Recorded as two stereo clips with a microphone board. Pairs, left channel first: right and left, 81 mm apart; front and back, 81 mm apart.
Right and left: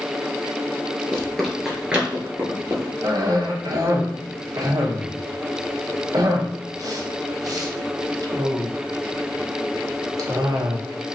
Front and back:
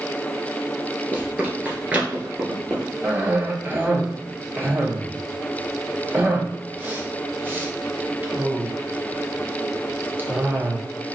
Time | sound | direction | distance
1.1 | running footsteps | 145° right | 1.2 m
3.0 | a cough | 120° left | 0.8 m